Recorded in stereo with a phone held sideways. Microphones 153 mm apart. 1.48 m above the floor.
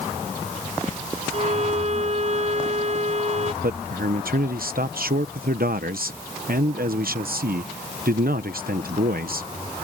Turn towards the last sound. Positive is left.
turn(degrees=-75)  # may be behind; listen again after turning